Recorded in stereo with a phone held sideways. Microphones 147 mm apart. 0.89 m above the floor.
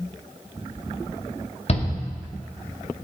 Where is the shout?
45° left (ahead or behind), 2 m.